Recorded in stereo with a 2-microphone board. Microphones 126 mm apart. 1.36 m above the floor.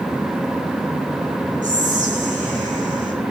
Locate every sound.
1.6 s whispering: 85° right, 10 m